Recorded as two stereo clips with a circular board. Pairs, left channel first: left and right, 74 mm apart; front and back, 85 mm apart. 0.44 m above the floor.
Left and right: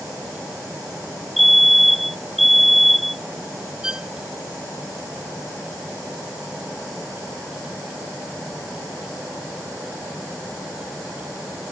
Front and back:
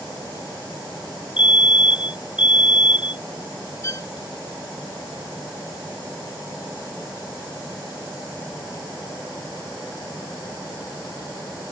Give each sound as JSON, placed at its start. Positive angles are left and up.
{"t": 1.4, "sound": "a fire alarm", "azimuth_deg": 0}
{"t": 3.8, "sound": "a violin", "azimuth_deg": -15}